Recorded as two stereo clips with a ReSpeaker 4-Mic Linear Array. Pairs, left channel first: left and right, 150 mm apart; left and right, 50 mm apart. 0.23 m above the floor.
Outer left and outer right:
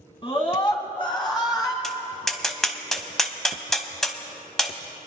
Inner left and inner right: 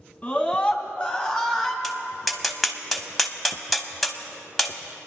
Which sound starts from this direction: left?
A scream, at 0.2 s.